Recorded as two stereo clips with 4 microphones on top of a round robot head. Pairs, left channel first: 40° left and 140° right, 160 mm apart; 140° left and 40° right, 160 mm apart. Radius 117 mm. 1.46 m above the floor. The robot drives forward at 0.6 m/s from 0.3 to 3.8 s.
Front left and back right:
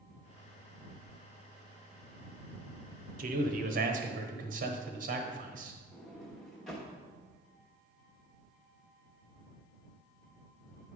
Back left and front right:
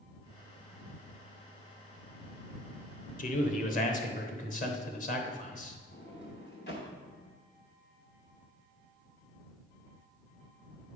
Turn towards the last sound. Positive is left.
turn(degrees=130)